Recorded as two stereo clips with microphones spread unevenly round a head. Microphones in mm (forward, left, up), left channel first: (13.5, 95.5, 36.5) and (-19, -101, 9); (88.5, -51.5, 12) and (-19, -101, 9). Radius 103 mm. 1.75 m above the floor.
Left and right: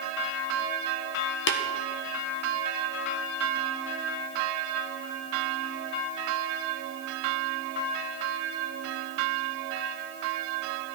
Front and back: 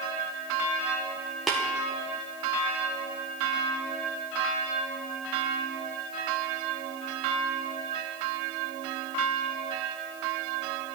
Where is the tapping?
115° left, 1.4 m.